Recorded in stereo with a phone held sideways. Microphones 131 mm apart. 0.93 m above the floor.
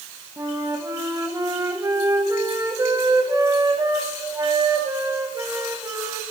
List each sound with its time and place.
0.4 s a flute: 25° right (ahead or behind), 0.8 m